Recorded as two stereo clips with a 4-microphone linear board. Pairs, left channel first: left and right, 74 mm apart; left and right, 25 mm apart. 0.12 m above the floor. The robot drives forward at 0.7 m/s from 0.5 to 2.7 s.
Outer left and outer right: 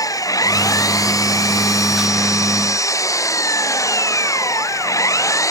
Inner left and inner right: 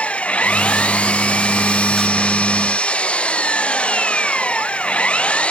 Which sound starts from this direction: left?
An engine running, at 0.0 s.